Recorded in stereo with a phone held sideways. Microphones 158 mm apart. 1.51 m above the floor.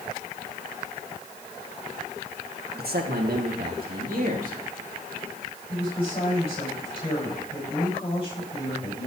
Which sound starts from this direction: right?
A man speaking, at 2.8 s.